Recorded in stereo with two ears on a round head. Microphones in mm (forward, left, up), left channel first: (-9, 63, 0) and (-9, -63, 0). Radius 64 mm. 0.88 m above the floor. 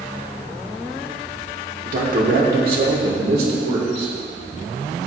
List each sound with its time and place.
1.9 s a man speaking: 60° right (ahead or behind), 2 m; by 4.1 s 75° right (ahead or behind), 3.5 m